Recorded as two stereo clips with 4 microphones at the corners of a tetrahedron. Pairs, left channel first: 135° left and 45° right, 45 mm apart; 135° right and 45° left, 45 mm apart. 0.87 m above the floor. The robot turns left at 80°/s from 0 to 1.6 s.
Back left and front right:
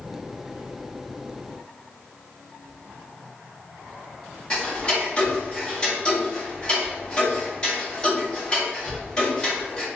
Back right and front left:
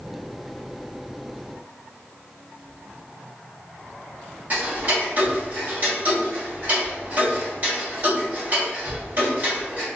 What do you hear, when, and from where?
4.5 s ticking: 75° left, 1.1 m